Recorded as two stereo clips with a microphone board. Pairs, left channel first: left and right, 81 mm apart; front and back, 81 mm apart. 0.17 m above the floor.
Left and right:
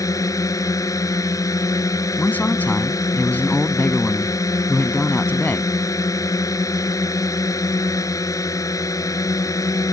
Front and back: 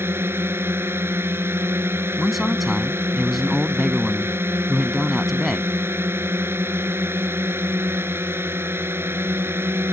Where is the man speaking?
95° left.